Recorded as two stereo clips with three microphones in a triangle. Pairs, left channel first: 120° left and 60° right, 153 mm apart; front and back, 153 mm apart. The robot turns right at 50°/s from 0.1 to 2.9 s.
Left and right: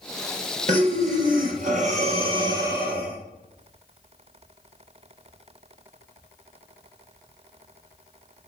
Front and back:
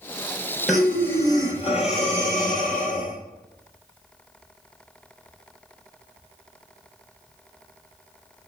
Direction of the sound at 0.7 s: 95° right.